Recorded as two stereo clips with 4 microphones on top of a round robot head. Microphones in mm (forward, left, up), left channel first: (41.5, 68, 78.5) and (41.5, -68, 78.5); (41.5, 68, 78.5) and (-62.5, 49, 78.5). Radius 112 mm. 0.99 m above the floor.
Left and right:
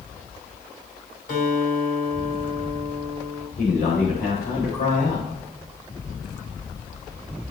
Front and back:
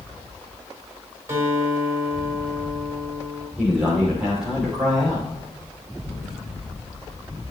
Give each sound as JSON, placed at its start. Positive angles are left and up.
{"t": 1.3, "sound": "a guitar", "azimuth_deg": 125, "distance_m": 4.0}
{"t": 3.6, "sound": "a man speaking", "azimuth_deg": 105, "distance_m": 3.0}